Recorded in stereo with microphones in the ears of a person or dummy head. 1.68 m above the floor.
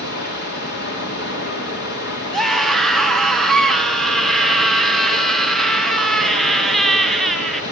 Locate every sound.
0.0 s running water: 55° left (ahead or behind), 2.5 m
2.3 s a scream: centre (ahead or behind), 1.6 m